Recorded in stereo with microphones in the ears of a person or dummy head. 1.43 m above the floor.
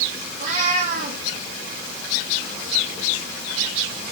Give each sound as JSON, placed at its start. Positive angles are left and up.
{"t": 0.4, "sound": "a cat meowing", "side_deg": -50, "distance_m": 5.5}